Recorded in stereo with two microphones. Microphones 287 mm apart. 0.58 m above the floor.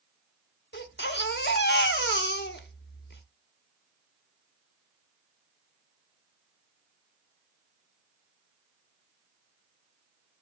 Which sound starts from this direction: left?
A baby crying, at 0.7 s.